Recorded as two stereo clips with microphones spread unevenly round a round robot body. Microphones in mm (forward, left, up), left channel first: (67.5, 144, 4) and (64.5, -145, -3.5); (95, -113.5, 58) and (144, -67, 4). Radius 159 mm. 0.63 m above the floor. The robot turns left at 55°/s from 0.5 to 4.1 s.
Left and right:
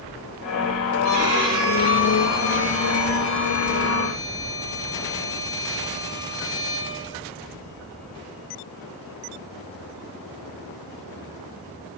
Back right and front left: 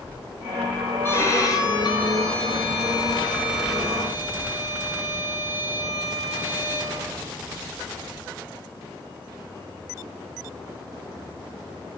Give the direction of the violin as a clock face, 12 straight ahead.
2 o'clock.